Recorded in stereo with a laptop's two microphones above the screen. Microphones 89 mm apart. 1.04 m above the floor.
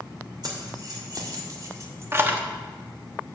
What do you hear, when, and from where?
0.4 s keys jangling: 50° right (ahead or behind), 2.5 m; by 2.4 s 20° right (ahead or behind), 0.9 m